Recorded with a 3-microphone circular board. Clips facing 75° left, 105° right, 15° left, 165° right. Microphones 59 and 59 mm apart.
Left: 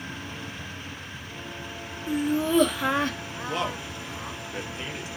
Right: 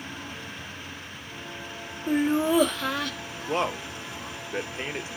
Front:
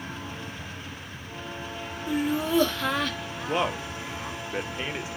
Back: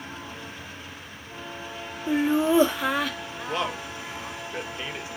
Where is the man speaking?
55° right, 0.9 m.